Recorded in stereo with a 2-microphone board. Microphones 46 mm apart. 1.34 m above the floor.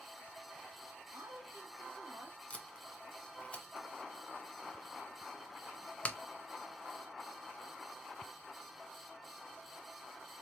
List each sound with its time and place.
1.1 s a woman speaking: 70° right (ahead or behind), 1.0 m
2.5 s tape being pulled: 30° left (ahead or behind), 0.7 m